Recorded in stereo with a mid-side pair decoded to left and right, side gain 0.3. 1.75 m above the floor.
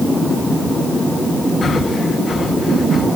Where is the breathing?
60° left, 3.5 m.